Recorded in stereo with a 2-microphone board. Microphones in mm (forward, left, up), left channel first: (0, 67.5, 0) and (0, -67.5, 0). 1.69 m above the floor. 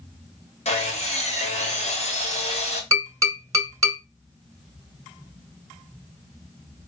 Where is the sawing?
55° left (ahead or behind), 1.4 m.